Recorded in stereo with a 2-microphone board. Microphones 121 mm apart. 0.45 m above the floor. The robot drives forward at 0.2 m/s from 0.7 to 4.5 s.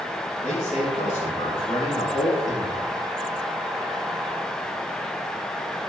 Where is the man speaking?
70° left (ahead or behind), 5.5 m.